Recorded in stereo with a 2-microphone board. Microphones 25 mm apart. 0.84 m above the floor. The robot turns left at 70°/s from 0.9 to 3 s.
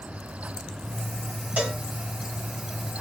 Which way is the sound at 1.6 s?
70° right (ahead or behind).